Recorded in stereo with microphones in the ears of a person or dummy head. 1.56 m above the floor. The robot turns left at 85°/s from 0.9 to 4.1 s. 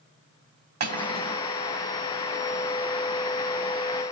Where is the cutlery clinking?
125° right, 2.5 m; by 1.4 s 170° right, 2.5 m.